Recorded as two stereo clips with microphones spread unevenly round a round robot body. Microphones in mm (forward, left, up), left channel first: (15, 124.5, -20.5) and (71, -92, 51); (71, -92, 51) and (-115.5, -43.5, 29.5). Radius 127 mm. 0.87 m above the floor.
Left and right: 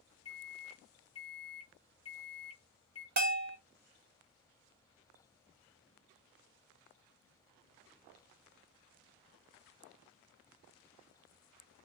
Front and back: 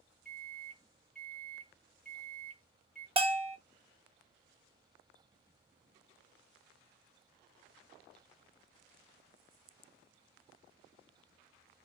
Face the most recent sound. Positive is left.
turn(degrees=-135)